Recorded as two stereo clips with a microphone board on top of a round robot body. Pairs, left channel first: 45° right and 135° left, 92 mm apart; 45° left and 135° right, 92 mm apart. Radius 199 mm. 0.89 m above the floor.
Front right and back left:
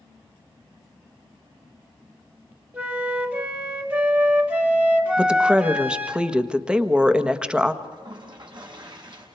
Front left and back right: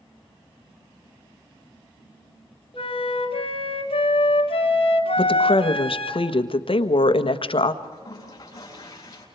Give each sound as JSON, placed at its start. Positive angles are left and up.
{"t": 2.7, "sound": "a flute", "azimuth_deg": 60, "distance_m": 2.5}
{"t": 5.2, "sound": "a woman speaking", "azimuth_deg": 55, "distance_m": 1.6}
{"t": 7.8, "sound": "a toilet flushing", "azimuth_deg": 95, "distance_m": 7.0}